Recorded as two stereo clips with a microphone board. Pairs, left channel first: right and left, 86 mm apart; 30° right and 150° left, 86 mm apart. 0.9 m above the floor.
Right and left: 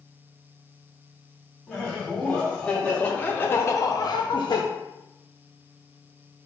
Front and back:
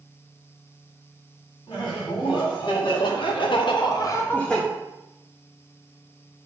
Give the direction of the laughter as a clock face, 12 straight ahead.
12 o'clock.